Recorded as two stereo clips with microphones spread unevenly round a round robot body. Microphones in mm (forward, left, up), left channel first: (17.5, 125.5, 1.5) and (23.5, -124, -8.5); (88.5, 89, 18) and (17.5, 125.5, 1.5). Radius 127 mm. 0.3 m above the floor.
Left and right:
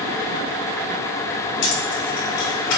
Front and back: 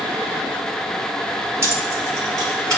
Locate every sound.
1.6 s keys jangling: 105° left, 1.4 m; by 2.8 s 110° left, 2.5 m